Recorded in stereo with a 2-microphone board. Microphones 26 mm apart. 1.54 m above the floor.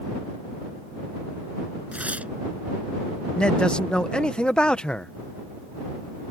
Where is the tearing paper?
65° right (ahead or behind).